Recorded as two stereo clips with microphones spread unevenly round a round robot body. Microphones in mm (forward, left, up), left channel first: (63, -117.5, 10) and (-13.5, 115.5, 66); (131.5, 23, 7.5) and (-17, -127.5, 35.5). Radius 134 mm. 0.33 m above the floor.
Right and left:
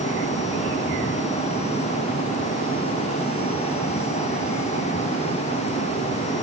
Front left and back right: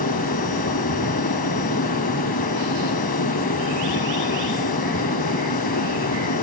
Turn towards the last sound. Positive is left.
No sound to turn to.